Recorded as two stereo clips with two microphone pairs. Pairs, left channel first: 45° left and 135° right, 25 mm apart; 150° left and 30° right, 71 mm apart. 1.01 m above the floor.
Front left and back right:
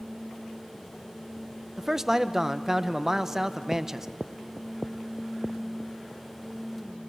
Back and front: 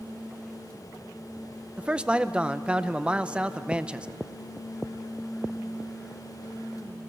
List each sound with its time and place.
1.8 s a man speaking: 80° right, 0.7 m